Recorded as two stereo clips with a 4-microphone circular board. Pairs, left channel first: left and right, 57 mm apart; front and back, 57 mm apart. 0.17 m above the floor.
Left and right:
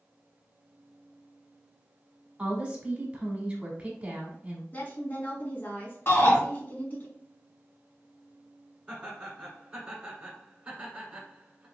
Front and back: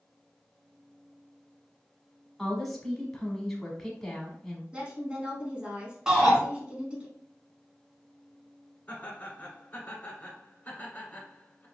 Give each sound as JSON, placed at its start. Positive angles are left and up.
{"t": 2.4, "sound": "a woman speaking", "azimuth_deg": -75, "distance_m": 1.0}
{"t": 4.7, "sound": "a woman speaking", "azimuth_deg": 120, "distance_m": 1.3}
{"t": 6.1, "sound": "a shout", "azimuth_deg": 110, "distance_m": 1.5}
{"t": 8.9, "sound": "laughter", "azimuth_deg": -20, "distance_m": 1.4}